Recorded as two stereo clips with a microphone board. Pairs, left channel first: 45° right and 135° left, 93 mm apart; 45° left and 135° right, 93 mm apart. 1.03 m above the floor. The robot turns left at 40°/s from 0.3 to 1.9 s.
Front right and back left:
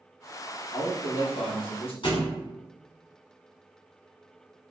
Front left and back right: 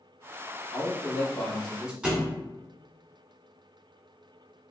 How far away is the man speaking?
About 1.0 m.